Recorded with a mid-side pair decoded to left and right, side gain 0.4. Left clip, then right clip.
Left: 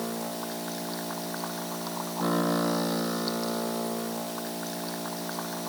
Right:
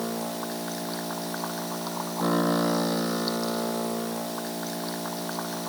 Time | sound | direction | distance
0.0 | a machine running | 15° right | ?